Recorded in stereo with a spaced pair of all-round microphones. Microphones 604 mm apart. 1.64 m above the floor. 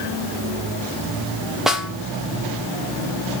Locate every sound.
1.7 s a snare drum: centre (ahead or behind), 1.0 m